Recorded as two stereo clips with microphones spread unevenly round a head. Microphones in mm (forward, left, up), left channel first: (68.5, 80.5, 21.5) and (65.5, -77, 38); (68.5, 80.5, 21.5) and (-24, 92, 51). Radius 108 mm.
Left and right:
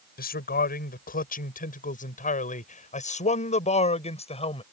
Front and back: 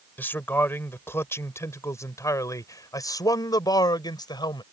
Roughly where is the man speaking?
Ahead left.